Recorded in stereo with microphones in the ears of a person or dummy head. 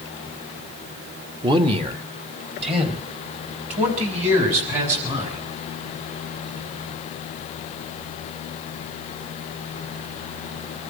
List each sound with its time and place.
1.4 s a man speaking: 25° right (ahead or behind), 1.4 m; by 5.4 s 35° right (ahead or behind), 7.5 m